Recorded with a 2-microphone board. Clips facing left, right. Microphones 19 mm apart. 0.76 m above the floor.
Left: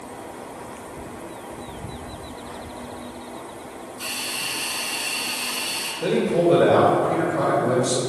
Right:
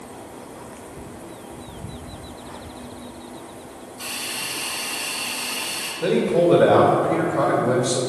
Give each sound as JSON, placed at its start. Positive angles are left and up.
{"t": 4.0, "sound": "a hiss", "side_deg": -10, "distance_m": 2.5}
{"t": 6.0, "sound": "a man speaking", "side_deg": -25, "distance_m": 2.0}